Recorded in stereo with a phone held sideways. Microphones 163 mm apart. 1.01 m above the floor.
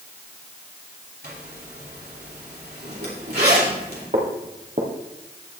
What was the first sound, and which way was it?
A zipper, 75° right (ahead or behind).